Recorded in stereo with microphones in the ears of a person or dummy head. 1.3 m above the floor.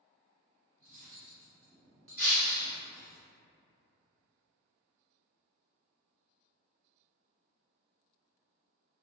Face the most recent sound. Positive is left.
turn(degrees=40)  # may be behind; listen again after turning